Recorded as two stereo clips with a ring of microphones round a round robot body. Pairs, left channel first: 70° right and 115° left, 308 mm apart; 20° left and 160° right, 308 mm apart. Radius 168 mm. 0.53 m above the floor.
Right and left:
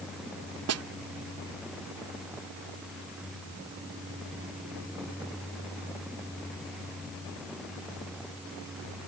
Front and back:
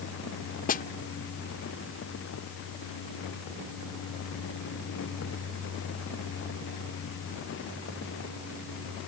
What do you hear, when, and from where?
0.7 s a snare drum: 80° left